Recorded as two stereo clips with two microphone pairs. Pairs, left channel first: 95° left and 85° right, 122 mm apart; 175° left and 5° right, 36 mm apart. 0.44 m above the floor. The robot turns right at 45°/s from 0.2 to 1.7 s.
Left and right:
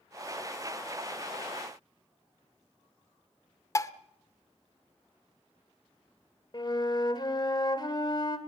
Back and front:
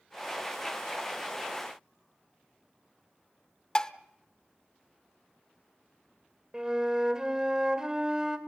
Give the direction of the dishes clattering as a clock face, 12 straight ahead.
8 o'clock.